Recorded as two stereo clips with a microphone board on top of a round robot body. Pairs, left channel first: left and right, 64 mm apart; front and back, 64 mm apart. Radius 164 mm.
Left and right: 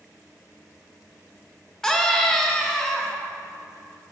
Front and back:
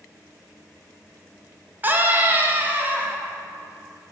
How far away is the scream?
About 1.4 m.